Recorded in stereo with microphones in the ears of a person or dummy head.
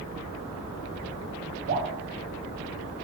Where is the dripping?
80° right, 3.5 m.